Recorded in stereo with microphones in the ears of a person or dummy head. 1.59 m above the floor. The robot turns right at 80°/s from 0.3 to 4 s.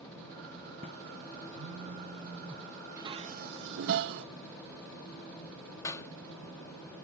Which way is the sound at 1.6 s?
80° right.